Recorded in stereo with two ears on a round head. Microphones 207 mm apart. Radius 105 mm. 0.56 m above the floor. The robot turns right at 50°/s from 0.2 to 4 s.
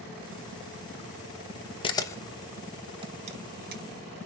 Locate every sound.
1.8 s a camera shutter: 25° left (ahead or behind), 0.9 m; by 4.2 s 50° right (ahead or behind), 0.9 m